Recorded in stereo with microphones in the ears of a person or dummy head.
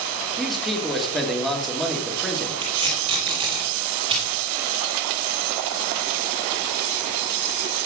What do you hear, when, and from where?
0.4 s a man speaking: 5° left (ahead or behind), 1.9 m
2.6 s tape being pulled: 25° right (ahead or behind), 5.5 m